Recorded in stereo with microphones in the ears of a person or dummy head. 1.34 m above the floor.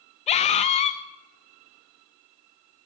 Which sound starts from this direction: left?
A scream, at 0.3 s.